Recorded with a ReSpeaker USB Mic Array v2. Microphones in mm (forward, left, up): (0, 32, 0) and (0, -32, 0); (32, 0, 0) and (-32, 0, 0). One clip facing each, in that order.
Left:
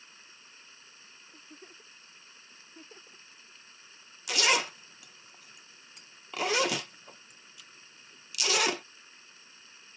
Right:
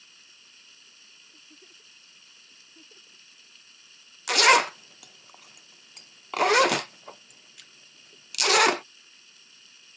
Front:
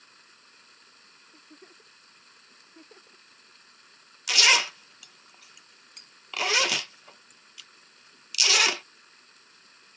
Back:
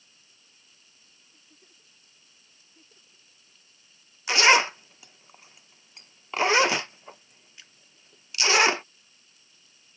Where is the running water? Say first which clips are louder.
Left 2 dB, front 7 dB; 30° left.